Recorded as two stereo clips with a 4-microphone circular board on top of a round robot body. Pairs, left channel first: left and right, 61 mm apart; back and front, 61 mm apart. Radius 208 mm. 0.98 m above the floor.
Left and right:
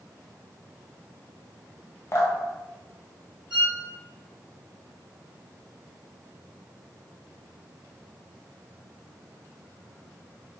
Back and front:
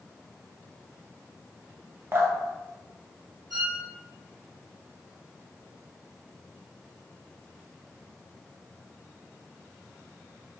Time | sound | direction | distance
2.1 | dripping | 50° left | 0.7 m
3.5 | a violin | 10° right | 1.2 m